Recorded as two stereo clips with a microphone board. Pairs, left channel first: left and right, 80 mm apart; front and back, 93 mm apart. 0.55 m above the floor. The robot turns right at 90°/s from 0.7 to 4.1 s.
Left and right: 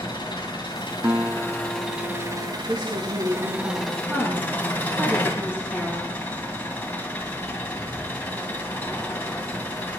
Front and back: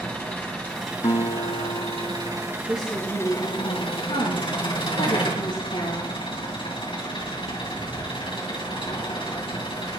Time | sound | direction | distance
0.0 | an engine running | 75° left | 3 m
1.0 | a guitar | 30° right | 1.0 m
2.7 | a woman speaking | 145° right | 5 m